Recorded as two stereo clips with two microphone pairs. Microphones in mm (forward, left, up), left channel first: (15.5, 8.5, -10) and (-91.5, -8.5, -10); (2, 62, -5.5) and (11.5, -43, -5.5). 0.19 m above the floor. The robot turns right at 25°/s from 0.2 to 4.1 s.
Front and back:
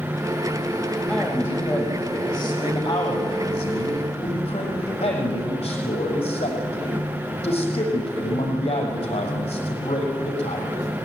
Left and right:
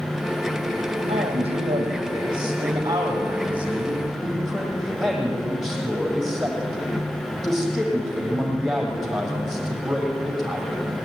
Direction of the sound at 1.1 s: 70° right.